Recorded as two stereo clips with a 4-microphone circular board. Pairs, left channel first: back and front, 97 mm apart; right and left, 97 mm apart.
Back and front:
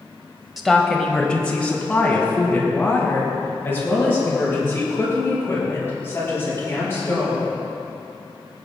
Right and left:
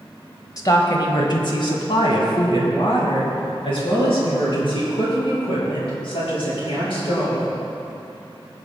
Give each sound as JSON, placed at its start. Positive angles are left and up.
{"t": 0.6, "sound": "a woman speaking", "azimuth_deg": -90, "distance_m": 1.2}